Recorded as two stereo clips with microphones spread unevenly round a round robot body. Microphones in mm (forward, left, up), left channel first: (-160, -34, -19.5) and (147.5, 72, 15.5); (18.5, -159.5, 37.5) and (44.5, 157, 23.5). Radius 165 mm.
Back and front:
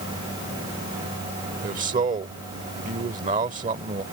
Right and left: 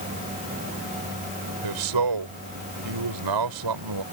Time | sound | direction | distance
1.6 | a man speaking | 90° left | ?